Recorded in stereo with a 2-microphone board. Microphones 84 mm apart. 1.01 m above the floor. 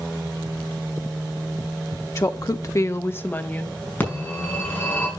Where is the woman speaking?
40° left (ahead or behind), 0.7 m; by 3.8 s 15° left (ahead or behind), 1.7 m.